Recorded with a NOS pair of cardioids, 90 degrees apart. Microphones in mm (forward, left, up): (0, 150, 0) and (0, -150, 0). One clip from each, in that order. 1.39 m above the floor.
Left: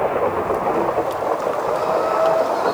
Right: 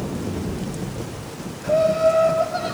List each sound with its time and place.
1.6 s laughter: 70° right, 9.5 m; by 2.7 s 75° right, 10 m